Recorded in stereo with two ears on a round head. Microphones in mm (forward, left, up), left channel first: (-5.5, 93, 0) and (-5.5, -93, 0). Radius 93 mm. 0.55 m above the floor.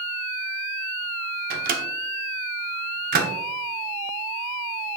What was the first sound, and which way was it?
A microwave, 40° right (ahead or behind).